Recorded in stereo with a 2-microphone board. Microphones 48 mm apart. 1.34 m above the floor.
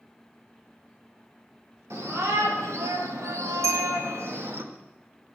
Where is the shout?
65° right (ahead or behind), 3 m; by 4.6 s 50° right (ahead or behind), 1.6 m.